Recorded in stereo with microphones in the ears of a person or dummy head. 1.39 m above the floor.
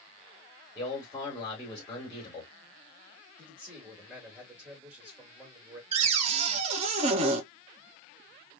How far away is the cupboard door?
About 0.7 m.